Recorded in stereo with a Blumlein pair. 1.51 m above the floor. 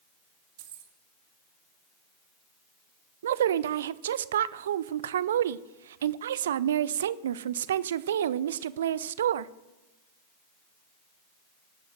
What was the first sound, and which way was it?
Keys jangling, 55° right.